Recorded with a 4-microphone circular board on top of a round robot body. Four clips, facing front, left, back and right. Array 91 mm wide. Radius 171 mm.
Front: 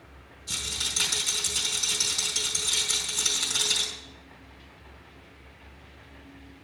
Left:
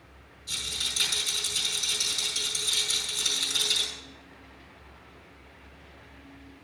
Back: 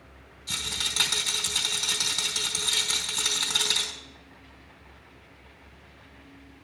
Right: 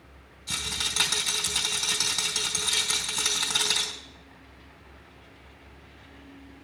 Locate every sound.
0.5 s a rattle: 120° right, 2.5 m